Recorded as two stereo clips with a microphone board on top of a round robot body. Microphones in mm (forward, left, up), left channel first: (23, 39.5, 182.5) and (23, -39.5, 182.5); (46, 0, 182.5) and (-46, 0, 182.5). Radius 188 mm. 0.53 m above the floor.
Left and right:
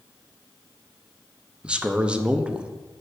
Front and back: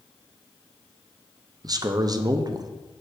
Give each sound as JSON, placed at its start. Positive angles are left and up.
{"t": 1.6, "sound": "a man speaking", "azimuth_deg": -160, "distance_m": 0.8}